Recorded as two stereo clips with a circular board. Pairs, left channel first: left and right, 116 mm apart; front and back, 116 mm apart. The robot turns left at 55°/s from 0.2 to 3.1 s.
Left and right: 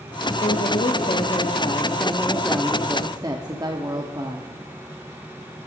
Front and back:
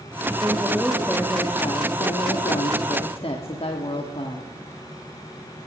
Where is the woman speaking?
115° left, 1.3 m; by 4.5 s 35° right, 1.3 m.